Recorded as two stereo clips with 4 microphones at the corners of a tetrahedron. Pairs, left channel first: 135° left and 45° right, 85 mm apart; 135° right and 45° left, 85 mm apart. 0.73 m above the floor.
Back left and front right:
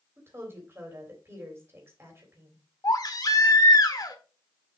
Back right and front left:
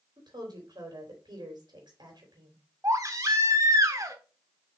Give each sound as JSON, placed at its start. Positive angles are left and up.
{"t": 0.2, "sound": "a woman speaking", "azimuth_deg": 15, "distance_m": 3.0}
{"t": 2.8, "sound": "a baby crying", "azimuth_deg": 95, "distance_m": 1.2}